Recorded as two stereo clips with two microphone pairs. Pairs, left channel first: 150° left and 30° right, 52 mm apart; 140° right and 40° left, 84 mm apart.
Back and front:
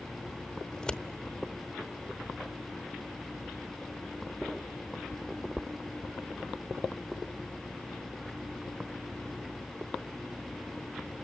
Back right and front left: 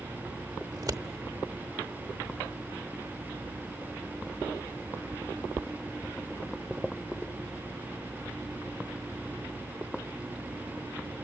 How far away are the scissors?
About 0.9 m.